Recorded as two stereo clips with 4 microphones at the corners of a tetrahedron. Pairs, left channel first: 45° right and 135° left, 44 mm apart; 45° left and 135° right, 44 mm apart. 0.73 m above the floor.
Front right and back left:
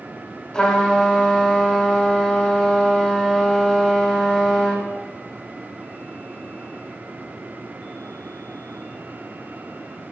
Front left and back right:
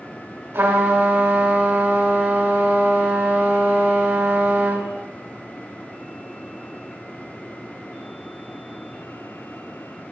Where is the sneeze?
No sneeze in this recording.